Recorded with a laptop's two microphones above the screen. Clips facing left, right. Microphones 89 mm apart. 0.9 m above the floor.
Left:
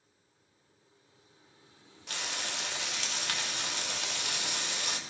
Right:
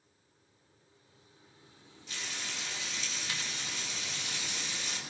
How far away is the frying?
About 1.9 m.